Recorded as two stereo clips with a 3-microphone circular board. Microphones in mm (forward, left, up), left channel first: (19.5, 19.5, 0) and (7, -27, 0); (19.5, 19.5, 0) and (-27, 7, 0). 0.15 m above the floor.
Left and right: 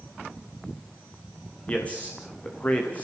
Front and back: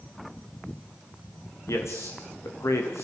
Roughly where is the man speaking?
Ahead.